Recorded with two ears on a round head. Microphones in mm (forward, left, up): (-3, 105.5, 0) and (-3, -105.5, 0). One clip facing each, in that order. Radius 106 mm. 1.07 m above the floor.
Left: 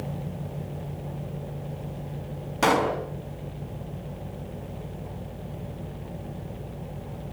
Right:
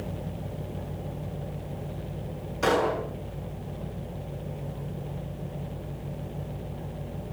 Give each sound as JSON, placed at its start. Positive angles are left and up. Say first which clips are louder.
{"t": 2.6, "sound": "a pop", "louder": "left 1 dB", "side_deg": 75, "distance_m": 5.5}